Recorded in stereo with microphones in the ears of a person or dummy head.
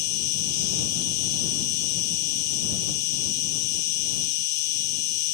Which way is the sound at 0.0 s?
60° left (ahead or behind).